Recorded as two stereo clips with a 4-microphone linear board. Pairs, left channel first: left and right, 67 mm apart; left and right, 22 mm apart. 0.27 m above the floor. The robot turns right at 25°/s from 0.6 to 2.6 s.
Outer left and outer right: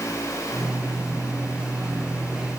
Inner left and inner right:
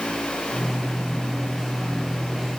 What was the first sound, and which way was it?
Only background noise.